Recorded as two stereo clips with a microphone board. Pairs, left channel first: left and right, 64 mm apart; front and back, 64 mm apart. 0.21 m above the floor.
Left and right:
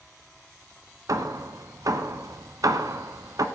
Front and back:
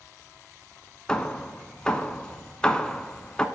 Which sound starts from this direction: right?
Hammering, at 1.1 s.